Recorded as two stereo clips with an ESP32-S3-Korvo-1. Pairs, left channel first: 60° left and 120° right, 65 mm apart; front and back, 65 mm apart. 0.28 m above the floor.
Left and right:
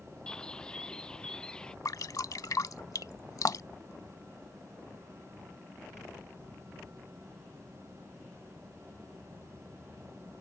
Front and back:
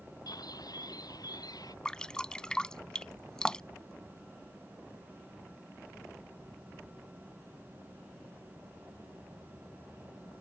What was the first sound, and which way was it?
A bird, 20° right.